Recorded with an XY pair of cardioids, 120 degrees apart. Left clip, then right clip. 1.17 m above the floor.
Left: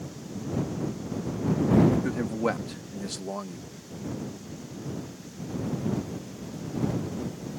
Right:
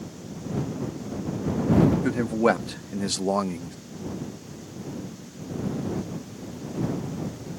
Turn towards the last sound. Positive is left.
turn(degrees=-80)